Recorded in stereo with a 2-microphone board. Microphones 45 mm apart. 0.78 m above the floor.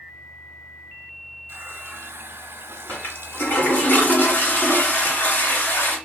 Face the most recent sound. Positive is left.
turn(degrees=50)  # may be behind; listen again after turning